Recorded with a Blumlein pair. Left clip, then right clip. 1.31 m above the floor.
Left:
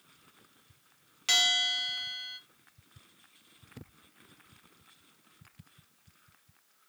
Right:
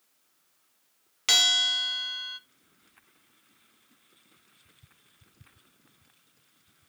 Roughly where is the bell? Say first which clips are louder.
Right 4 dB; ahead.